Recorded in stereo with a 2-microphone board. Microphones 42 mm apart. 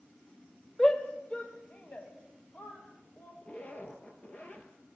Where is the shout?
20° left (ahead or behind), 1.1 m; by 3.3 s 50° left (ahead or behind), 2.5 m.